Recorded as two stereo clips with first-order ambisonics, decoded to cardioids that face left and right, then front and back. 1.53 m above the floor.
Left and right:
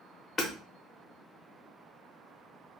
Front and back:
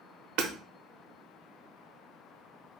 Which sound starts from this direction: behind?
Hammering, at 0.4 s.